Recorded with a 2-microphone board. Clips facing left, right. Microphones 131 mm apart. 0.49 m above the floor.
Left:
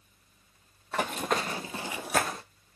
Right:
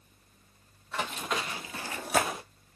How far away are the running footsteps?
About 0.9 m.